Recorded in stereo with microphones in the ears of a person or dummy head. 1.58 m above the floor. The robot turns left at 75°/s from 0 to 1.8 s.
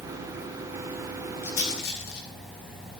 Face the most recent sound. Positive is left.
turn(degrees=85)